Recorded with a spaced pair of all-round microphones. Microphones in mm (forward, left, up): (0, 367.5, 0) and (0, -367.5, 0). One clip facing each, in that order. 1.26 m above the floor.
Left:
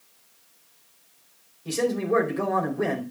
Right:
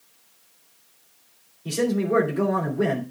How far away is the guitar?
No guitar in this recording.